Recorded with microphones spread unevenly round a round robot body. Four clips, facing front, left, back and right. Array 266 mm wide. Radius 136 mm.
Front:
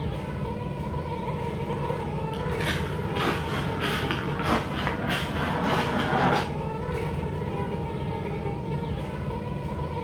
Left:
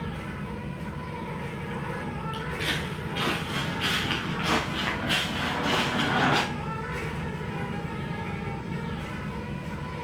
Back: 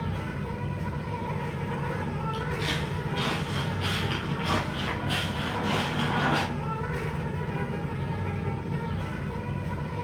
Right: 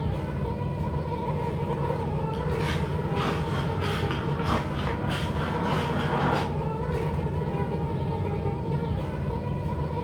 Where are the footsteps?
Straight ahead, 3.5 m; by 6.4 s 30° left, 4.5 m.